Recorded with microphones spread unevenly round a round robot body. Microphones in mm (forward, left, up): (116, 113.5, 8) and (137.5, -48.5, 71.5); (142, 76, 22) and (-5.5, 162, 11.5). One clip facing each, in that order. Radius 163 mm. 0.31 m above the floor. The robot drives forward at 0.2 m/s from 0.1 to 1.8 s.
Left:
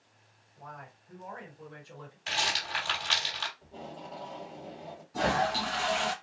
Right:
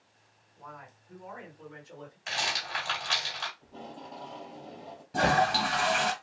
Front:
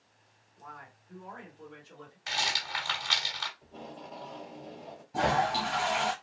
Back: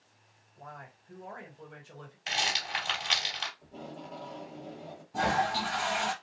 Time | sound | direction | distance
0.6 | a man speaking | 125° left | 1.6 m
2.3 | a rattle | 95° left | 2.5 m
3.6 | tape being pulled | 80° left | 1.9 m
5.1 | a toilet flushing | 120° right | 0.7 m